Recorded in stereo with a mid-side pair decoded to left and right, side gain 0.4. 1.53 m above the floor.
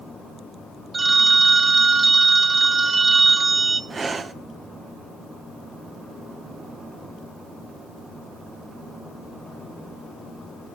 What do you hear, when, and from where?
0.9 s a phone ringing: 35° right, 1.4 m
3.9 s breathing: 40° right, 0.9 m